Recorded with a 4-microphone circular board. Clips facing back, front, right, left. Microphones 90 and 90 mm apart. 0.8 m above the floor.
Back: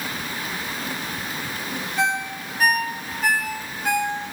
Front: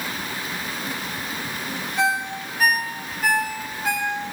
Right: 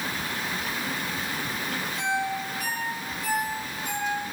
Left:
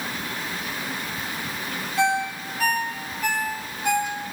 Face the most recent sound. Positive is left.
turn(degrees=90)